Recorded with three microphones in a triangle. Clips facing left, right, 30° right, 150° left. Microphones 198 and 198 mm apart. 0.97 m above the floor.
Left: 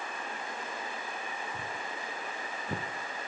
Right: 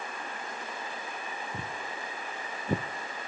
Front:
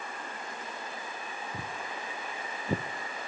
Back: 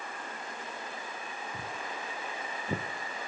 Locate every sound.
1.5 s footsteps: 90° right, 2 m; by 2.8 s 95° right, 1.0 m